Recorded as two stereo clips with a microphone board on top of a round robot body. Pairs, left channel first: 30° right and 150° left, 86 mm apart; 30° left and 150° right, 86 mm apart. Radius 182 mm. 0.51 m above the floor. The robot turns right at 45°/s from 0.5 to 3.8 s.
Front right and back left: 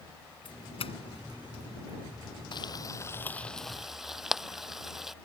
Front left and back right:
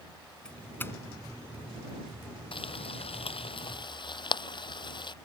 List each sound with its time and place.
0.5 s a doorbell: 50° right; by 2.0 s 15° left
2.5 s frying: 5° left; by 5.1 s 65° left